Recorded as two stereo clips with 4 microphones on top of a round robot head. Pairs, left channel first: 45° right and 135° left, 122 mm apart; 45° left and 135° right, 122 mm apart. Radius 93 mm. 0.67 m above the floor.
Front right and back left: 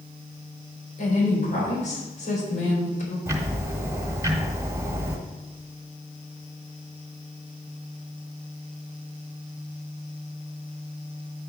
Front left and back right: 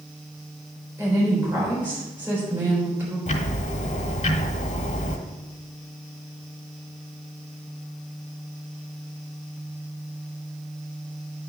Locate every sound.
1.0 s a woman speaking: 60° right, 4 m
3.3 s ticking: 70° left, 1.1 m